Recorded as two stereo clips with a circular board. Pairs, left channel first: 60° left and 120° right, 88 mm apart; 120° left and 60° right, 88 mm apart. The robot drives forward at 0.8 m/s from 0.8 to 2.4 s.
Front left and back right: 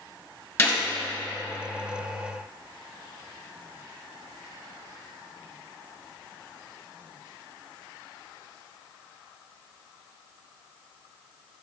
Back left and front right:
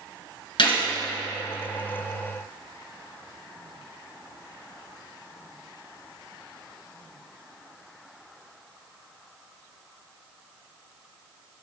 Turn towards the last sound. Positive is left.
turn(degrees=140)